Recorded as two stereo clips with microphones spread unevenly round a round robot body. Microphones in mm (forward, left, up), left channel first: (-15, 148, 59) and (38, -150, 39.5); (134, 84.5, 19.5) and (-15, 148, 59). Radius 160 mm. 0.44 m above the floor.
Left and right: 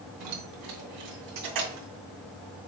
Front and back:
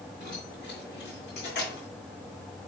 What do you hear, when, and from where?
0.2 s keys jangling: 95° right, 2.5 m; by 1.9 s 70° right, 2.5 m